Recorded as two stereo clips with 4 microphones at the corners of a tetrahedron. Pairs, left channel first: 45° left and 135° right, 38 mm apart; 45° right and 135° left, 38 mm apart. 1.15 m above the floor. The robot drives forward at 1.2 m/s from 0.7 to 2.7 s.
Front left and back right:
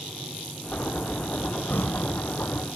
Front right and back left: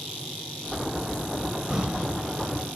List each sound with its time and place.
1.7 s breathing: 60° left; by 2.1 s 65° left